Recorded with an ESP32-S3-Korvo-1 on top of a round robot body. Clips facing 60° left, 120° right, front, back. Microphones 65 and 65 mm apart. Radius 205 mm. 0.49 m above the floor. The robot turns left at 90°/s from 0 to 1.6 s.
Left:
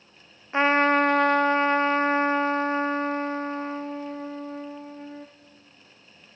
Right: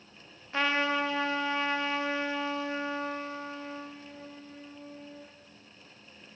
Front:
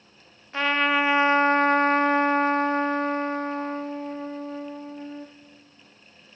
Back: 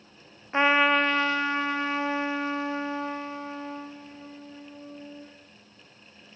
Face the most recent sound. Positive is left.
turn(degrees=25)